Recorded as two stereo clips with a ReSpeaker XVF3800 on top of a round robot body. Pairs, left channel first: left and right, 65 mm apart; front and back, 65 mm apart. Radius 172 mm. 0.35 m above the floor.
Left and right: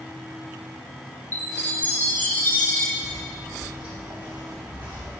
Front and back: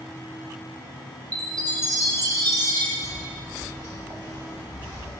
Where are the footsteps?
130° right, 1.9 m.